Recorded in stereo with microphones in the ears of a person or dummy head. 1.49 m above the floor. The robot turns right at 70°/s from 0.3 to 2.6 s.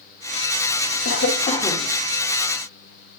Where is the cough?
110° left, 2 m; by 1.9 s 170° left, 2 m.